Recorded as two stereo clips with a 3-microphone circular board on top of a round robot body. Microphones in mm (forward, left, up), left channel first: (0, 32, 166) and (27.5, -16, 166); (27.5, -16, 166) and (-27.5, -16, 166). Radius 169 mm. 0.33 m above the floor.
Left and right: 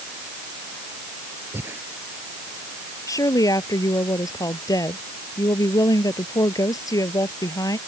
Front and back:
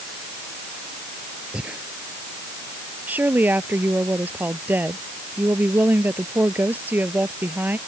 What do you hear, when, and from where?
1.5 s breathing: 110° right
3.1 s a woman speaking: 120° left